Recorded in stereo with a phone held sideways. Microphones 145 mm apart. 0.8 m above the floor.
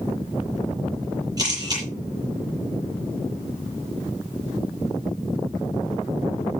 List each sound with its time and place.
1.4 s a camera shutter: 25° right (ahead or behind), 8.5 m